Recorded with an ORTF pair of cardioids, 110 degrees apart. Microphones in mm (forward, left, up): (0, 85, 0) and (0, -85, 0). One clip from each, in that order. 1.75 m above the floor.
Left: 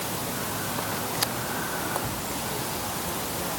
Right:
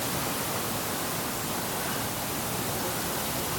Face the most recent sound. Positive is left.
No sound to turn to.